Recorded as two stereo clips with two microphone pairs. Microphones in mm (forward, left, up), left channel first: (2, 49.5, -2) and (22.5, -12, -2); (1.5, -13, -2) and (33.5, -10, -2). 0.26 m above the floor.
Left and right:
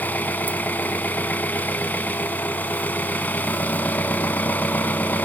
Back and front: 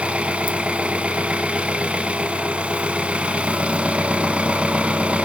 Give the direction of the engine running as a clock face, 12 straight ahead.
10 o'clock.